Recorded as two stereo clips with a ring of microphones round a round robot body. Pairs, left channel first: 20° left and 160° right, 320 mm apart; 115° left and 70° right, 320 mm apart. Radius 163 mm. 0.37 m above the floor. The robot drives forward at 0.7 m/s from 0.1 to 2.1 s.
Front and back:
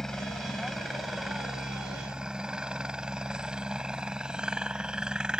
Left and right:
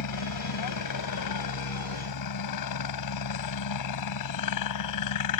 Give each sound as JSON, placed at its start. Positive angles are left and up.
{"t": 0.0, "sound": "a helicopter", "azimuth_deg": 110}